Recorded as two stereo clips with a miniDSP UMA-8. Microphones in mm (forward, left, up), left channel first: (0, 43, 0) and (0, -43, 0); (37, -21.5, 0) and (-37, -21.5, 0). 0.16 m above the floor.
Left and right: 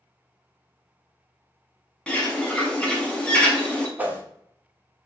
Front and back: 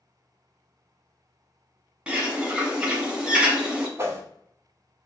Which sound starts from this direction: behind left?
A bird, at 2.1 s.